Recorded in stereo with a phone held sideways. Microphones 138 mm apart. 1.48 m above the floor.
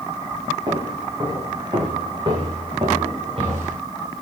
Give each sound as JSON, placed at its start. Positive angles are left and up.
{"t": 0.7, "sound": "footsteps", "side_deg": -30, "distance_m": 10.0}